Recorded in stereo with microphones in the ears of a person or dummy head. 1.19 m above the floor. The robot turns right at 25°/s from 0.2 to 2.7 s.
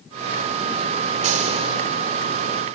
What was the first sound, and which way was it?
A gunshot, 45° right (ahead or behind).